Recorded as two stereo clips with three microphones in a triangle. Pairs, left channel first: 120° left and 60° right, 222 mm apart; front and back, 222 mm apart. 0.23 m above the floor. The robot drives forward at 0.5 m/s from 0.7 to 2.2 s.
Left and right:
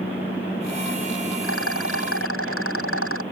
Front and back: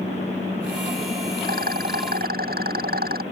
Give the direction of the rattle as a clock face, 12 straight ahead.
8 o'clock.